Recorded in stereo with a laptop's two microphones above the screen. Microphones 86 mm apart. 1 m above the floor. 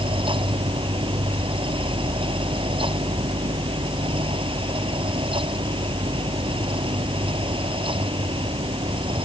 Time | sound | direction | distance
0.0 | a fan | 85° right | ?